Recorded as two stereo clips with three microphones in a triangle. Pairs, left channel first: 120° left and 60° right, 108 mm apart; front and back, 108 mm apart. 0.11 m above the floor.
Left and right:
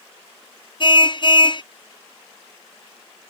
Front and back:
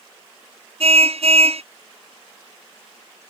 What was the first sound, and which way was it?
A car horn, 165° left.